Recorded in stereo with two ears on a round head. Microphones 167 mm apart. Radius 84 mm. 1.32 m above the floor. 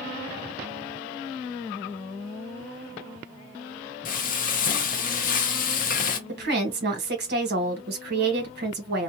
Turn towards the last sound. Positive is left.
turn(degrees=-60)  # may be behind; listen again after turning